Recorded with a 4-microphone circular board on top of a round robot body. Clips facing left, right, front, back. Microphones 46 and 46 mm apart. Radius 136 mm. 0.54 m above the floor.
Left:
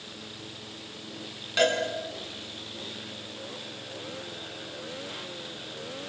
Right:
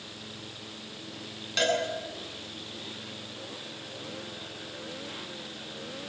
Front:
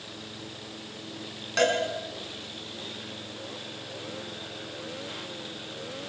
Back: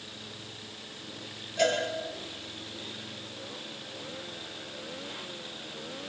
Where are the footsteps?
No footsteps in this recording.